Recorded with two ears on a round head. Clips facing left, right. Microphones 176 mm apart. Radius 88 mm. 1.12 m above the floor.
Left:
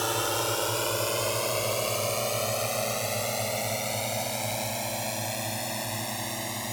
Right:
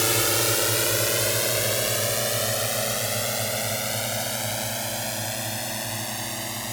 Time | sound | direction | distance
0.0 | a drone | 30° right (ahead or behind) | ?